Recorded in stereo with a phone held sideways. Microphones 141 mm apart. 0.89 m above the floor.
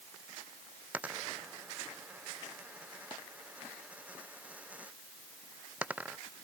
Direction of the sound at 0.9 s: 10° right (ahead or behind).